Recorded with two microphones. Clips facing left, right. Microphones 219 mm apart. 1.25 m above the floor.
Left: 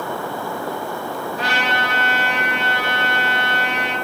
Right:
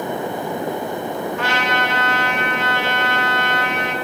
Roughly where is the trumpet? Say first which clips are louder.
Right 2 dB; left.